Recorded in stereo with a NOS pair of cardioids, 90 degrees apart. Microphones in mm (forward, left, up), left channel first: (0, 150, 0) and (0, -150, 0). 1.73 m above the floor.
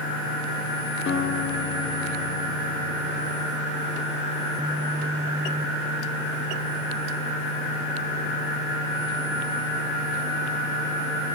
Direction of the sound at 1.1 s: 40° left.